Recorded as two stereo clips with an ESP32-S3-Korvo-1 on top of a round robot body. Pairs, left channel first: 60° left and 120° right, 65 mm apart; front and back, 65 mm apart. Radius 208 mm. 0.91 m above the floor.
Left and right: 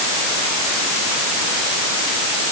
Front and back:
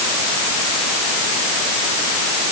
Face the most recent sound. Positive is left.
No sound to turn to.